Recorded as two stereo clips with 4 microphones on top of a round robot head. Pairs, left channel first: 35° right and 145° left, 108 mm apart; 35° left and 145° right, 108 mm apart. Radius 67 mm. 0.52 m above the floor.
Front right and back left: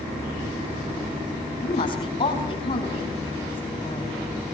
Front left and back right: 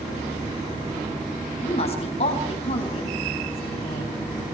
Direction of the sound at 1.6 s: 5° left.